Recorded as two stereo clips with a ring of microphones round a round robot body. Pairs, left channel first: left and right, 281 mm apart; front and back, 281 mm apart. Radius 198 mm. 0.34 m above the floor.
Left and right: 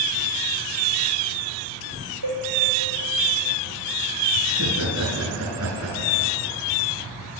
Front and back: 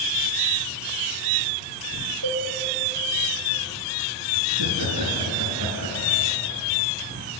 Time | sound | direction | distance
2.2 | a cowbell | 140° right | 5.5 m
4.5 | laughter | 145° right | 5.5 m